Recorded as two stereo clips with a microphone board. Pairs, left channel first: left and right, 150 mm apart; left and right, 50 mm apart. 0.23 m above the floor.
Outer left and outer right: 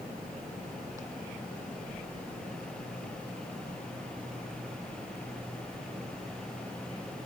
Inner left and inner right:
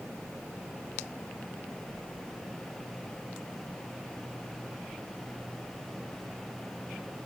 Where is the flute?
I don't hear a flute.